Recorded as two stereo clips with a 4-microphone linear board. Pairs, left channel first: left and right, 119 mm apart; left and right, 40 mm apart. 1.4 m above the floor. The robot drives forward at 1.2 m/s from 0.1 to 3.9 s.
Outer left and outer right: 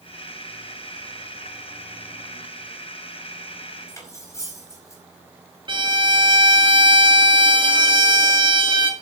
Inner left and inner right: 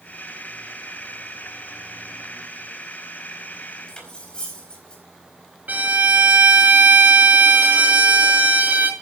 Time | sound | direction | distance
3.9 | cutlery clinking | 25° left (ahead or behind) | 4.5 m
5.7 | a violin | 40° right (ahead or behind) | 2 m